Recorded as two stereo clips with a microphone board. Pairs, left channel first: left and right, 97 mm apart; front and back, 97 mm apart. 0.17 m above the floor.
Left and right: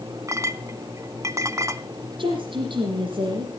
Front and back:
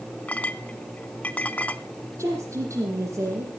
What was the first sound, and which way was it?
A clink, 65° right.